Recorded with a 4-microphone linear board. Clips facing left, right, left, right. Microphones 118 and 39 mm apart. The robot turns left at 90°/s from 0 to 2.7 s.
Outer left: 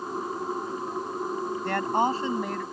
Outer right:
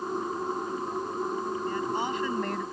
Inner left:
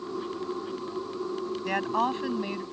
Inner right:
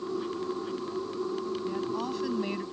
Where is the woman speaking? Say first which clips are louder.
Outer left 8 dB, inner left 5 dB; 80° left; by 2.6 s 10° right.